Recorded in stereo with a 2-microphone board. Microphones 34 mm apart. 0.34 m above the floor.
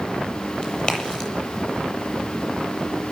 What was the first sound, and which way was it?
A crack, 25° left (ahead or behind).